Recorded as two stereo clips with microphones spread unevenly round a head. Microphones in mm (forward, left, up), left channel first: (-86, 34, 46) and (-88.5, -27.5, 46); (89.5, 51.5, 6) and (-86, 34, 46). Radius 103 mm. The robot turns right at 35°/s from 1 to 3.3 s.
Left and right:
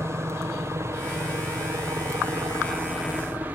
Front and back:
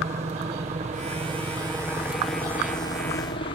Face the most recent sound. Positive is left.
turn(degrees=-35)